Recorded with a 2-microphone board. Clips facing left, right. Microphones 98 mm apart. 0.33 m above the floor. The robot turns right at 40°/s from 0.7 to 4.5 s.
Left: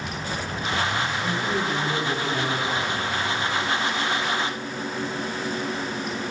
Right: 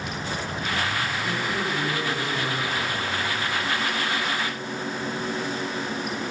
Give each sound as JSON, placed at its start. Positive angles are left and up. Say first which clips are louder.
{"t": 1.2, "sound": "a man speaking", "louder": "left 2 dB", "azimuth_deg": 45, "distance_m": 4.5}